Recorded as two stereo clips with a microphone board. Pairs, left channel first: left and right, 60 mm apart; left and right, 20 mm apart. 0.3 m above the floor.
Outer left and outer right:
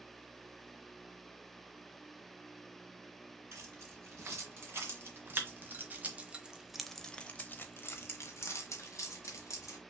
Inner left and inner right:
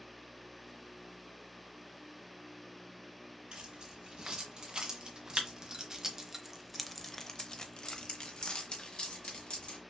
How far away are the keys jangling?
About 2.5 m.